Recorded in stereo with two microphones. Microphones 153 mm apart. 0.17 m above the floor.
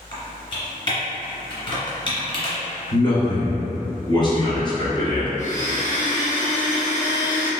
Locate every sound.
0.1 s typing on a keyboard: 35° left (ahead or behind), 1.6 m
2.9 s a man speaking: 30° left (ahead or behind), 1.3 m
5.4 s a blender: 55° left (ahead or behind), 1.4 m